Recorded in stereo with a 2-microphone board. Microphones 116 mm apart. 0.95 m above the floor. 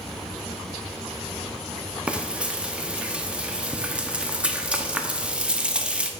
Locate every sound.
2.1 s frying: 10° right (ahead or behind), 0.6 m